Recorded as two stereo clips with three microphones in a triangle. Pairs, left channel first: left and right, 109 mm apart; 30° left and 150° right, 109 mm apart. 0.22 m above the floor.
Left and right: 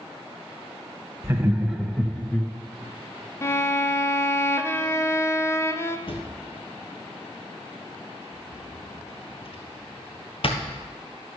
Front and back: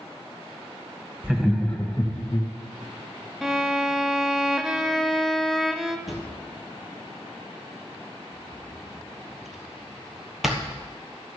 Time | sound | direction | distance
1.2 | laughter | 80° right | 1.1 m
3.4 | a violin | 125° left | 0.6 m
6.1 | a drawer | 120° left | 1.5 m